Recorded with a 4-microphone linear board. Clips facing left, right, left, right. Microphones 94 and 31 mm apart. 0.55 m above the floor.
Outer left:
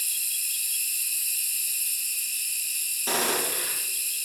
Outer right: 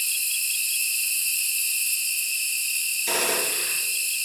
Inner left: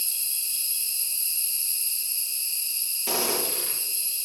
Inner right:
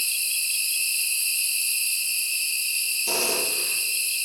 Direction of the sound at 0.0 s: 65° right (ahead or behind).